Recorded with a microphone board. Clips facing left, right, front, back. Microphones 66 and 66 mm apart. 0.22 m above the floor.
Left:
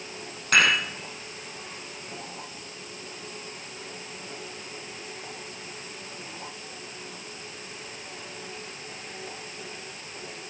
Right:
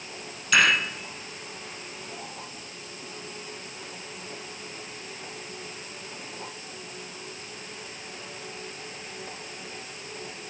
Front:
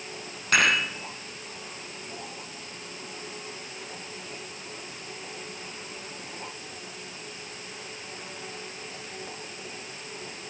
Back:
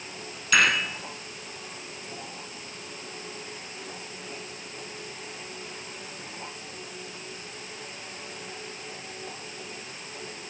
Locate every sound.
0.5 s dishes clattering: 45° left, 4 m